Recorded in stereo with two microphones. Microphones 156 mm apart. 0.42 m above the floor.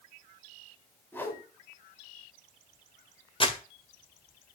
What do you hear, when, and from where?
1.1 s a whoosh: 15° left (ahead or behind), 2.5 m
3.4 s crumpling: 35° left (ahead or behind), 1.7 m